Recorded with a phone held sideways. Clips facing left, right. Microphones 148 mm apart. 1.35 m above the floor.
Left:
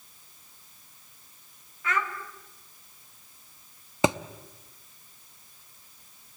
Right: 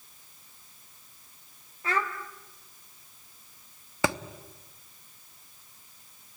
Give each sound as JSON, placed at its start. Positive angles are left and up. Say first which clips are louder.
{"t": 1.8, "sound": "a child speaking", "louder": "even", "side_deg": -35, "distance_m": 2.5}
{"t": 4.0, "sound": "a thud", "louder": "left 4 dB", "side_deg": 20, "distance_m": 0.8}